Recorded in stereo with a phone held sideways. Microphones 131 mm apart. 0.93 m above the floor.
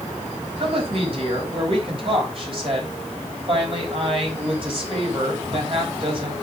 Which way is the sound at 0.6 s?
45° right (ahead or behind).